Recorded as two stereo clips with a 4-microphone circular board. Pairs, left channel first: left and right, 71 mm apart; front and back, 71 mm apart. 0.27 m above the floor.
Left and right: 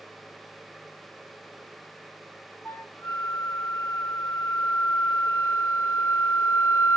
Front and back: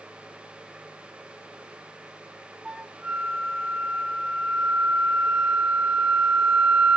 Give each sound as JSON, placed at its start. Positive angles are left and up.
{"t": 2.6, "sound": "a flute", "azimuth_deg": 105, "distance_m": 1.6}